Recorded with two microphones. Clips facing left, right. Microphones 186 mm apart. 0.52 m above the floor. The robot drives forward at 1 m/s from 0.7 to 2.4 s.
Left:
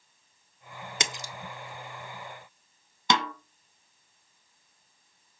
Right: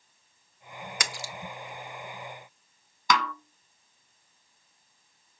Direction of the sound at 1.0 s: 25° left (ahead or behind).